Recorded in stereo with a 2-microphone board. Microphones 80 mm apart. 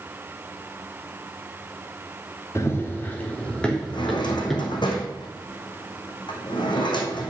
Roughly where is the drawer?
Left.